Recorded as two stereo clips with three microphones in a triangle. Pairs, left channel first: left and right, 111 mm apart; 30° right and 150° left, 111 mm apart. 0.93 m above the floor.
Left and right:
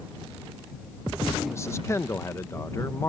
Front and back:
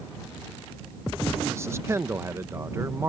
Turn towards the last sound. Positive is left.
turn(degrees=120)